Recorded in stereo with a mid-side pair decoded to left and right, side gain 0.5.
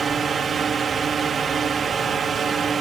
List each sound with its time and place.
0.0 s a drone: 45° right